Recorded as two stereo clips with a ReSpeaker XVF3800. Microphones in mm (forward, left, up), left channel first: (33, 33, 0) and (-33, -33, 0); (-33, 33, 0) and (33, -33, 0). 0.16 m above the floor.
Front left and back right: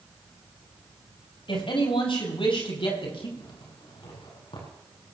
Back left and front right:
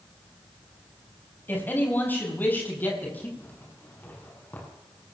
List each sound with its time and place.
1.5 s a man speaking: 65° left, 5.5 m
3.4 s a zipper: 65° left, 7 m